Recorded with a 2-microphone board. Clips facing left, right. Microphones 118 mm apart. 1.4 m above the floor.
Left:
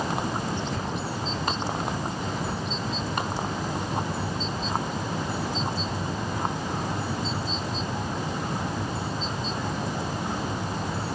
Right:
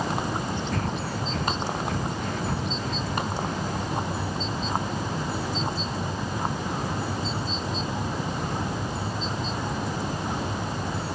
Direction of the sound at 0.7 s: 60° right (ahead or behind).